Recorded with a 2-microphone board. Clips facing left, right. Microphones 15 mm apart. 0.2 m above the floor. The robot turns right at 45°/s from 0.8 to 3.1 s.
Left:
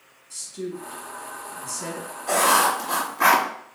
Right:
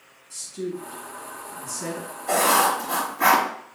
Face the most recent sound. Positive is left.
turn(degrees=115)